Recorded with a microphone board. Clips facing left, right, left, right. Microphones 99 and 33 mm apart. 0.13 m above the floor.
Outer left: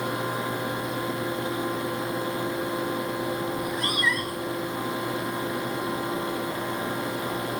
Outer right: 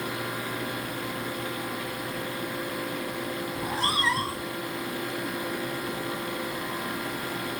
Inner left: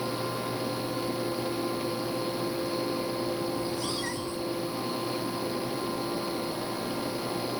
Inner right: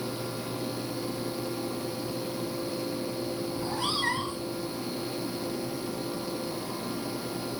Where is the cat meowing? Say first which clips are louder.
Even, inner right 1 dB; 30° right (ahead or behind).